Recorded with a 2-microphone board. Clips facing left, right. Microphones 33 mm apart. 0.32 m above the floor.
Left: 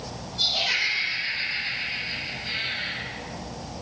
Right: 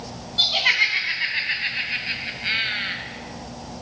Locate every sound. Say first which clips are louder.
0.4 s laughter: right 5 dB; 60° right (ahead or behind), 2 m; by 3.0 s 50° right (ahead or behind), 1.3 m